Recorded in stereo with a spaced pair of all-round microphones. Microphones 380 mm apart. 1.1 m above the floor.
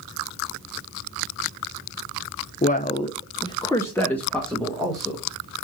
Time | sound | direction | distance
2.6 | a man speaking | 20° left (ahead or behind) | 0.6 m